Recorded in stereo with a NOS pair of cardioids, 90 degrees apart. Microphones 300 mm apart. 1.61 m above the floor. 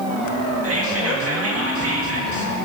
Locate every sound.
0.6 s whispering: 50° right, 1.9 m